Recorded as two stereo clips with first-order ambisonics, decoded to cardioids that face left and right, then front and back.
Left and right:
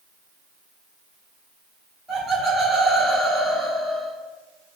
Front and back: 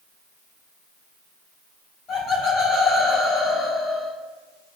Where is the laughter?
15° right, 0.9 m.